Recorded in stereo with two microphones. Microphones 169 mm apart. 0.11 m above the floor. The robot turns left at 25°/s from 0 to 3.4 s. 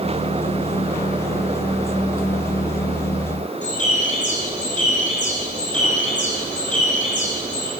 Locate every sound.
3.6 s a bird: 45° left (ahead or behind), 1.8 m